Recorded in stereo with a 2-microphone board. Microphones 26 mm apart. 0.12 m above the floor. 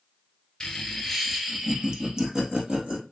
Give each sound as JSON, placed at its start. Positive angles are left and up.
{"t": 0.6, "sound": "laughter", "side_deg": 20, "distance_m": 1.7}